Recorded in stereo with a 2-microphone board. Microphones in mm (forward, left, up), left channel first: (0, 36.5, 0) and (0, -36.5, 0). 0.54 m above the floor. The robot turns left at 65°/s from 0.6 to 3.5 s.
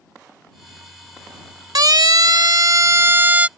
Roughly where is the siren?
Right.